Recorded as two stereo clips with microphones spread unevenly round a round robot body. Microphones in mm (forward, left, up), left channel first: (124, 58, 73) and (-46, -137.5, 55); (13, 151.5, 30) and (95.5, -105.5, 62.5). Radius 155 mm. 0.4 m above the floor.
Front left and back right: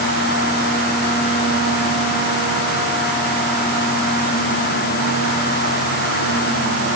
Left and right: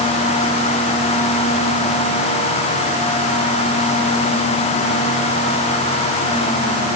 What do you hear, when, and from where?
Only background noise.